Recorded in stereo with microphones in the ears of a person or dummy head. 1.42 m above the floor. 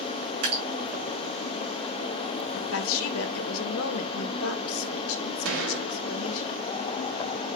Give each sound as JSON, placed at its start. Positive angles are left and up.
{"t": 0.4, "sound": "dripping", "side_deg": -45, "distance_m": 5.5}
{"t": 2.5, "sound": "a woman speaking", "side_deg": 70, "distance_m": 2.0}
{"t": 5.5, "sound": "a gunshot", "side_deg": -65, "distance_m": 2.5}